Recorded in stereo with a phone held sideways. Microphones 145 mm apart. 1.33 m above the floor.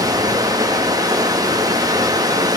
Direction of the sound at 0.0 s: 25° right (ahead or behind).